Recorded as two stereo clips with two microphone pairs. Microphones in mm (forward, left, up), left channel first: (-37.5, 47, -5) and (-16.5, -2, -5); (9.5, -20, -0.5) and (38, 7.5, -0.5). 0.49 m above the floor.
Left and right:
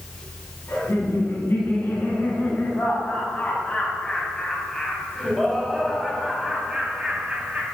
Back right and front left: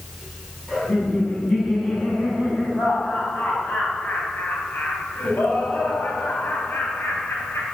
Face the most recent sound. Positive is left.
turn(degrees=-130)